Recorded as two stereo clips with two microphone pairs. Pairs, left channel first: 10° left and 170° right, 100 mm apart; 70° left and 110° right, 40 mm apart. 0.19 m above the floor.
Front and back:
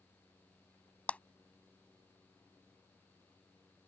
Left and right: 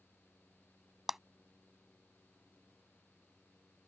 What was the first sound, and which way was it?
A clap, 40° right.